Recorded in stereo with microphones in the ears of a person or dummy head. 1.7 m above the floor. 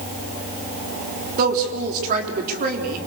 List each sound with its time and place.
1.4 s a woman speaking: 50° right (ahead or behind), 4 m